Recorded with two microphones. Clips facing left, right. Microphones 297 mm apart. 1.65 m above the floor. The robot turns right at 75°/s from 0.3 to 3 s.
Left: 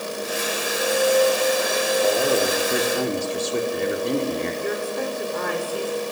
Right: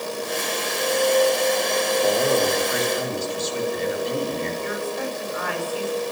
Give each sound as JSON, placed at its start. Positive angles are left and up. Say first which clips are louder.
{"t": 2.0, "sound": "a man speaking", "louder": "even", "azimuth_deg": -10, "distance_m": 5.0}
{"t": 4.6, "sound": "a woman speaking", "louder": "left 2 dB", "side_deg": 50, "distance_m": 7.0}